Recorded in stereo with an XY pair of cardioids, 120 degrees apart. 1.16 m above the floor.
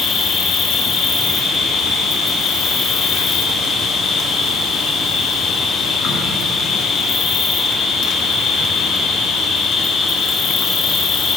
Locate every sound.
0.0 s an insect: 60° left, 1.5 m